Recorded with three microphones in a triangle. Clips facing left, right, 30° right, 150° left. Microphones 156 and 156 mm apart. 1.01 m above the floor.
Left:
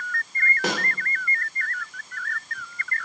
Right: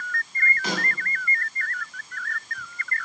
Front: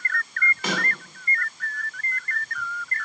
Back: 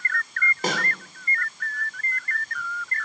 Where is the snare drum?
100° left, 2 m.